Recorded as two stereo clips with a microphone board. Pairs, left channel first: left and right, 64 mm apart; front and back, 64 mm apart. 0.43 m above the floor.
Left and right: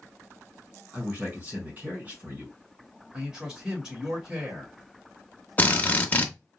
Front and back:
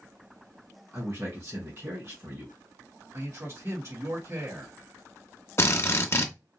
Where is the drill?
35° left, 0.6 m.